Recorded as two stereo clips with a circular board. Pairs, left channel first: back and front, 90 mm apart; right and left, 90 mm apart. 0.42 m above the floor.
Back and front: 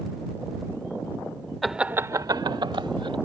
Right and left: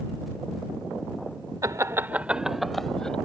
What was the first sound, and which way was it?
Laughter, 95° left.